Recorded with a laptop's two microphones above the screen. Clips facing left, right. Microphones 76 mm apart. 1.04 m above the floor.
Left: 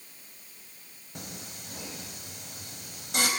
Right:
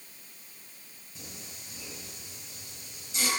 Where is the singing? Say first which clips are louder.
Left 5 dB; 65° left (ahead or behind), 4.5 m.